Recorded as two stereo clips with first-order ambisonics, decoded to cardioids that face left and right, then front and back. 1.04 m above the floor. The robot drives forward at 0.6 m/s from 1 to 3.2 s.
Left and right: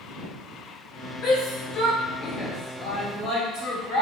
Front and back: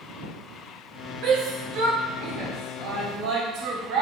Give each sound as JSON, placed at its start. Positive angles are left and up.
{"t": 1.2, "sound": "a shout", "azimuth_deg": 120, "distance_m": 3.0}